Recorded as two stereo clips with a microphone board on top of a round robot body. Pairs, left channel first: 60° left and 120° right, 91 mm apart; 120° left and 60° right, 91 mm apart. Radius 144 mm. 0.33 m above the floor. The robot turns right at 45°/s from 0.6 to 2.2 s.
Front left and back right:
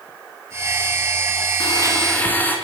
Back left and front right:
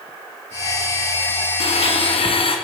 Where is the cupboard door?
No cupboard door in this recording.